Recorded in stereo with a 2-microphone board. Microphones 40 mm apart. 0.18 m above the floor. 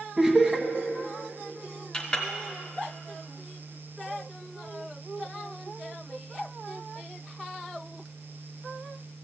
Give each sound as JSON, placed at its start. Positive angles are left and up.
{"t": 0.2, "sound": "laughter", "side_deg": -15, "distance_m": 1.2}
{"t": 1.9, "sound": "a clink", "side_deg": 20, "distance_m": 1.2}